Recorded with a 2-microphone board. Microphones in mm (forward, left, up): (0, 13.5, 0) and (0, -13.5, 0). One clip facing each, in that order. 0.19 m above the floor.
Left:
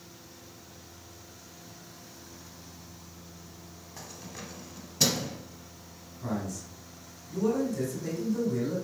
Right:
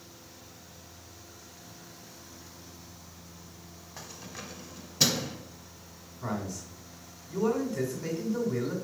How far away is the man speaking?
About 1.8 m.